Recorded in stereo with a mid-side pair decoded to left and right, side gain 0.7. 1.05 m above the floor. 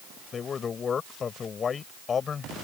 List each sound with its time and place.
0.3 s a man speaking: 30° left